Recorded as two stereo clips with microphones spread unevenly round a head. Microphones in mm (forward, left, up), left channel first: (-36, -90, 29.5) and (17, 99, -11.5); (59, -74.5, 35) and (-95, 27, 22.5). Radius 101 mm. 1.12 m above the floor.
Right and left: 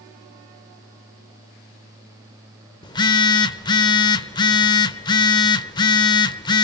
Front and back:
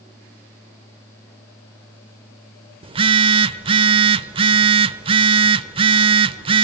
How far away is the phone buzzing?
About 1.1 m.